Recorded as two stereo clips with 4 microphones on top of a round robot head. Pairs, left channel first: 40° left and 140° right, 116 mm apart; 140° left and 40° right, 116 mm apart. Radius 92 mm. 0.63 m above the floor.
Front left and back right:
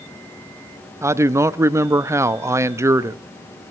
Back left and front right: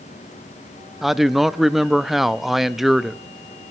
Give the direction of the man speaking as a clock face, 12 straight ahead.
4 o'clock.